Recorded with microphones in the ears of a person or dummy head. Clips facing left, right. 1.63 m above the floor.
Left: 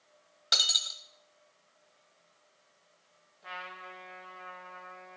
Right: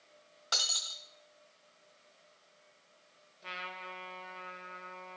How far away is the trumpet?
About 1.6 m.